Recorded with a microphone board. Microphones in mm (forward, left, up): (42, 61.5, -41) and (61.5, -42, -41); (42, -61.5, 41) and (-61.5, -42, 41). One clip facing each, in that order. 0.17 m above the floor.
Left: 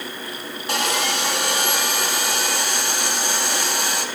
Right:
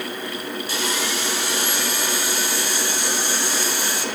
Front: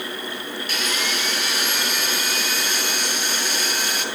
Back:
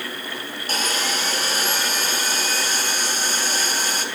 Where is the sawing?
120° left, 1.3 m.